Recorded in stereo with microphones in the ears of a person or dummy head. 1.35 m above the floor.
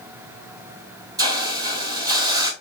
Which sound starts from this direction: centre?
A hiss, at 1.2 s.